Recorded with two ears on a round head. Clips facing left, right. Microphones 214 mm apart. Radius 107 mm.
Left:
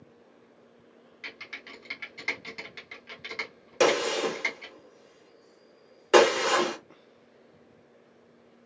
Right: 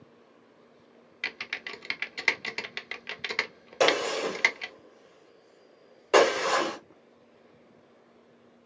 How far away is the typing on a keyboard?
About 0.6 m.